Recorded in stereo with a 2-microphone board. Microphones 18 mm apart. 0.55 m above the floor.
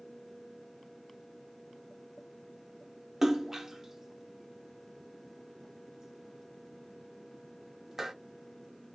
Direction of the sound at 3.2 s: 20° right (ahead or behind).